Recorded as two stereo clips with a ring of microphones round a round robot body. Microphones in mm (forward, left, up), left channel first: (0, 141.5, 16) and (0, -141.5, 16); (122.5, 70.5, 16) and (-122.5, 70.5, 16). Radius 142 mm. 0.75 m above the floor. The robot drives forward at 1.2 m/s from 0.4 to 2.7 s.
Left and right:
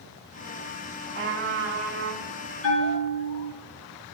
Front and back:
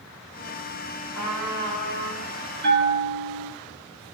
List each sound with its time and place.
1.1 s a trumpet: 40° right, 4 m; by 2.3 s 55° right, 3 m
2.6 s a bell: 135° left, 6.5 m